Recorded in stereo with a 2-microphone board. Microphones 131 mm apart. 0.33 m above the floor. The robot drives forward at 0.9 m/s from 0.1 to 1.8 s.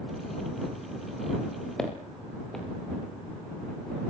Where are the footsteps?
5° left (ahead or behind), 6.5 m.